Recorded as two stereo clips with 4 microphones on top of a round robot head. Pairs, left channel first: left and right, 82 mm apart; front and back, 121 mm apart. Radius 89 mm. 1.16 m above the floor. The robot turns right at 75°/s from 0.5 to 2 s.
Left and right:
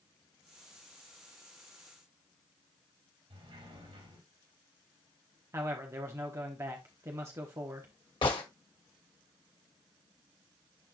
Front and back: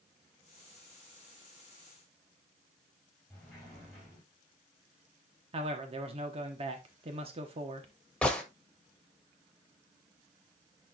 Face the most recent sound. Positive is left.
turn(degrees=80)